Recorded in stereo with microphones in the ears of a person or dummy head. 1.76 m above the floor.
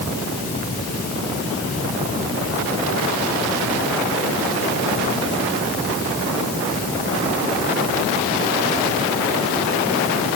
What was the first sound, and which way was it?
Only background noise.